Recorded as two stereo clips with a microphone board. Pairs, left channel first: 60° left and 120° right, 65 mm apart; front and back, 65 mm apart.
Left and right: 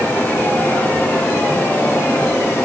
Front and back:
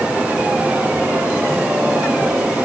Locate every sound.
Only background noise.